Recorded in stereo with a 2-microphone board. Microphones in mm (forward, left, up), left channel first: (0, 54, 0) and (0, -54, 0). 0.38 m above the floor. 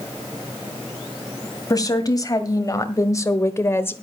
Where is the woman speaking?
35° left (ahead or behind), 2.0 m; by 3.9 s 20° left (ahead or behind), 1.0 m.